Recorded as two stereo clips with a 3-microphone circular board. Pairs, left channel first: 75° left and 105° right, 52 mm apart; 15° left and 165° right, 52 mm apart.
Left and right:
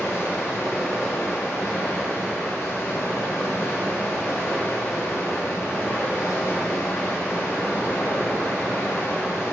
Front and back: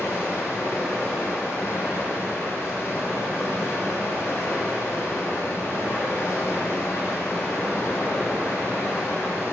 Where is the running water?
45° left, 1.9 m.